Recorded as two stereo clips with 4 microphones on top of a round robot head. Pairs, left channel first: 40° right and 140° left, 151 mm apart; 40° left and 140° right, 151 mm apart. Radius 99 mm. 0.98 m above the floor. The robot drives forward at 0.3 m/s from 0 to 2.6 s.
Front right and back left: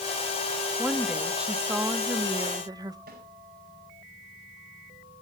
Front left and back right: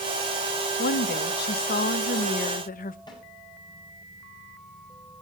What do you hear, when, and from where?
0.8 s a woman speaking: 50° left, 1.3 m; by 3.0 s 70° left, 1.1 m
3.1 s a snare drum: 105° left, 9 m